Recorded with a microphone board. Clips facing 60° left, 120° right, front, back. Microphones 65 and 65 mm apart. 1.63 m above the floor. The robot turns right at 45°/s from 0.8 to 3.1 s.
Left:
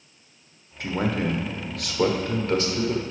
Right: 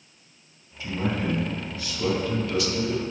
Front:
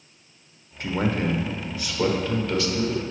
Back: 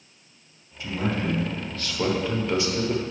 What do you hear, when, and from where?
0.8 s a man speaking: 35° left, 1.1 m; by 3.0 s 135° left, 1.1 m